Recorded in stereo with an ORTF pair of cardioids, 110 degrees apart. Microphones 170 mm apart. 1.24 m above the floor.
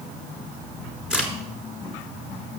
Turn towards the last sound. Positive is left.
turn(degrees=-5)